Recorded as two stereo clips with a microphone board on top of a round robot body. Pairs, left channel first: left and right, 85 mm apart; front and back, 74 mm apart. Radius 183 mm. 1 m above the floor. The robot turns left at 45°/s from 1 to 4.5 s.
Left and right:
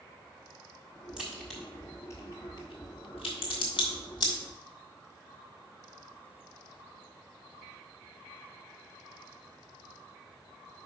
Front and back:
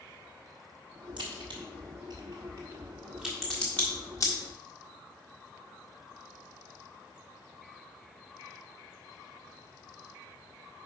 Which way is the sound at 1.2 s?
170° right.